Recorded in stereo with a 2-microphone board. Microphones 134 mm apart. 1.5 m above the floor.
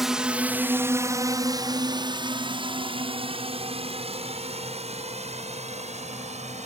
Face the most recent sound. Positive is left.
turn(degrees=-55)  # may be behind; listen again after turning